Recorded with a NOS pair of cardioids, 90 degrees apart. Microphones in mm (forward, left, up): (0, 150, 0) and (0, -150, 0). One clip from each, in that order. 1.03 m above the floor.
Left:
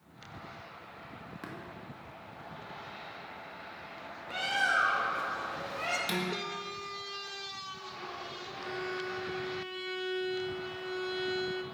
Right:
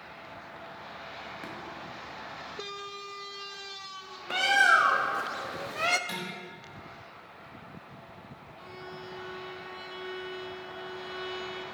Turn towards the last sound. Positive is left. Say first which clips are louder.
# left 6 dB
turn(degrees=30)